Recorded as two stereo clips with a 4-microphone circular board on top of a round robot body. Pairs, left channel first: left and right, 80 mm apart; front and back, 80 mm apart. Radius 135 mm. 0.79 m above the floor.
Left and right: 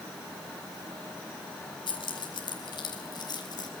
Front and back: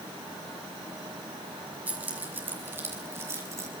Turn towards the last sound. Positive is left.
turn(degrees=125)